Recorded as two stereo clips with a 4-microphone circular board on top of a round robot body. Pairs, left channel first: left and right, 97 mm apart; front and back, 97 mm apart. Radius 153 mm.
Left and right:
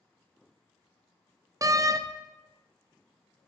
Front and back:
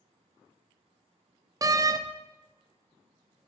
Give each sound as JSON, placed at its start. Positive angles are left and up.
{"t": 1.6, "sound": "a door slam", "azimuth_deg": -135, "distance_m": 0.6}